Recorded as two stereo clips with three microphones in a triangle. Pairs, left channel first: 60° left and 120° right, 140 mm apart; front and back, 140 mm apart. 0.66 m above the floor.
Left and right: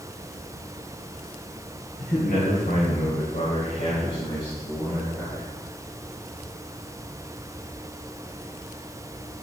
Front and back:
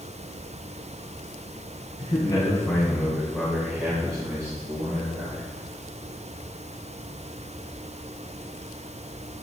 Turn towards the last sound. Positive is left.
turn(degrees=140)